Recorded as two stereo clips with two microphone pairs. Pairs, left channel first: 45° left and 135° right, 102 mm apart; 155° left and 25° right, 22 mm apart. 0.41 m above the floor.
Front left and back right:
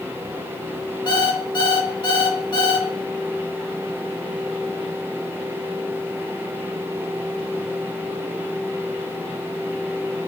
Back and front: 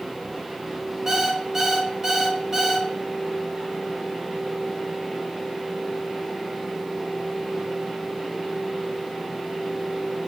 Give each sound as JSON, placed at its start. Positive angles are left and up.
{"t": 1.1, "sound": "an alarm clock", "azimuth_deg": 30, "distance_m": 0.8}